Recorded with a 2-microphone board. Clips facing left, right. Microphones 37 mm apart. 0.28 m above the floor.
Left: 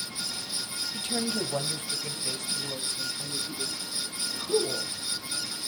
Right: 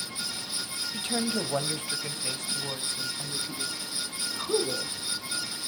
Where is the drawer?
No drawer in this recording.